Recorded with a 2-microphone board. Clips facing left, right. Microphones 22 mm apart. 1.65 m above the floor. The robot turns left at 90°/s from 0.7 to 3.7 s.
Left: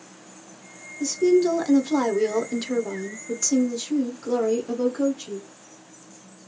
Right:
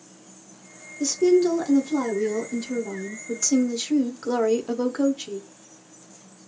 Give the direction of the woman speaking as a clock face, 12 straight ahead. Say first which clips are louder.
Even; 5 o'clock.